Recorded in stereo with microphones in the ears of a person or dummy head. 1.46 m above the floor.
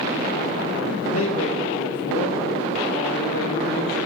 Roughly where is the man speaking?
Left.